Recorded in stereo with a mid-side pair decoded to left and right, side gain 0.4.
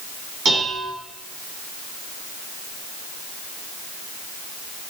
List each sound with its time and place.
0.5 s dishes clattering: 65° right, 8 m